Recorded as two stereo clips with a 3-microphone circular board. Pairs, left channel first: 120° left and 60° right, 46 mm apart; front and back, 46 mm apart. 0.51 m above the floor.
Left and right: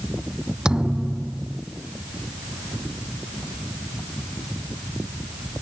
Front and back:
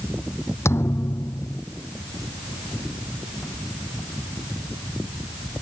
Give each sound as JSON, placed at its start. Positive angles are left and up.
{"t": 0.7, "sound": "a thud", "azimuth_deg": 10}